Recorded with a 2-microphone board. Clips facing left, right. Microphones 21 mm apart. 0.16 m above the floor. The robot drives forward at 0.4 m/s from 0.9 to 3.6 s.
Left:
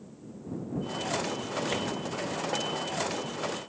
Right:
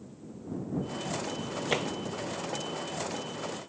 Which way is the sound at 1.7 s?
15° right (ahead or behind).